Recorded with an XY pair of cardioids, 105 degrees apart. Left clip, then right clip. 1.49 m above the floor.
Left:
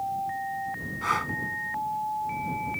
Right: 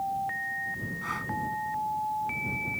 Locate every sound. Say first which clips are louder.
1.0 s breathing: left 9 dB; 50° left